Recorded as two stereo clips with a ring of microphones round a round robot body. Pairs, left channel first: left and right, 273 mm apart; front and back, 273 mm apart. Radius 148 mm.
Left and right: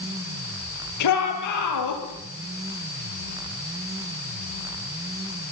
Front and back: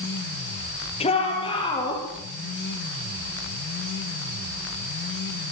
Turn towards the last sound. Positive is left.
turn(degrees=75)